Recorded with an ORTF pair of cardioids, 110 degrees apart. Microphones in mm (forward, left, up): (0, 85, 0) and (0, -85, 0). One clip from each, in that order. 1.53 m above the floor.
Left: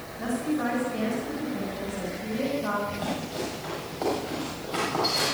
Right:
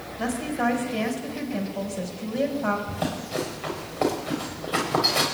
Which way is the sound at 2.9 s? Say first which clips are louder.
Right 2 dB; 65° right.